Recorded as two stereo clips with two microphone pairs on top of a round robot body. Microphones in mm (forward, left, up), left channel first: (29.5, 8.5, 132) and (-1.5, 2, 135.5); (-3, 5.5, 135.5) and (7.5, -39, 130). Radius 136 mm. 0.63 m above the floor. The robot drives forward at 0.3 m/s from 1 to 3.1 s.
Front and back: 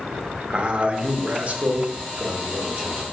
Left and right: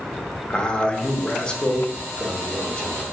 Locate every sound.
0.5 s a man speaking: 170° left, 0.7 m; by 3.0 s 175° left, 1.1 m